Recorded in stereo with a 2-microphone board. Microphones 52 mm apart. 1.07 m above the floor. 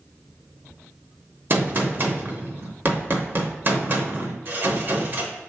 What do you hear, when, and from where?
1.5 s a gunshot: 40° right (ahead or behind), 0.7 m